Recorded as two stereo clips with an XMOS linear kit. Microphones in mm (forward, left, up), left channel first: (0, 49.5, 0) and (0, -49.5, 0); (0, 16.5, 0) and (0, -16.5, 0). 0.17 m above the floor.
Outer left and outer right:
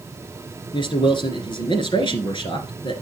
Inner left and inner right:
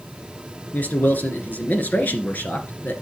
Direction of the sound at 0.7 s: 55° left (ahead or behind).